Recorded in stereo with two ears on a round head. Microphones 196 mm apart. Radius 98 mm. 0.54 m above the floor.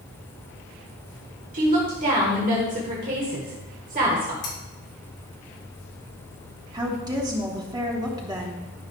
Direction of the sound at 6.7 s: 20° right (ahead or behind).